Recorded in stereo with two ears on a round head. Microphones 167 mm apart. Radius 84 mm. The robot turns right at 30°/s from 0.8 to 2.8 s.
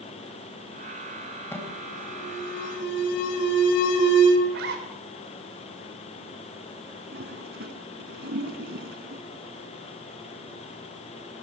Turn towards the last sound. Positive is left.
turn(degrees=-60)  # may be behind; listen again after turning